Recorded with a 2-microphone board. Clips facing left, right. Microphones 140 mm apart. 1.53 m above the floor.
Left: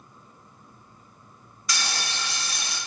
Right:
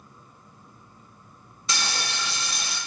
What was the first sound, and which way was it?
Frying, 25° right (ahead or behind).